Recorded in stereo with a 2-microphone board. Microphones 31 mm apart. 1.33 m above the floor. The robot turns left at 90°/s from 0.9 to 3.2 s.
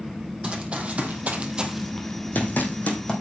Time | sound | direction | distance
0.4 | running footsteps | 30° right (ahead or behind) | 2.5 m